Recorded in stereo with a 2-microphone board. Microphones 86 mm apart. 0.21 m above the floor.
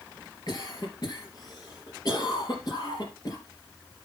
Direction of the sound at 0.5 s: 45° left (ahead or behind).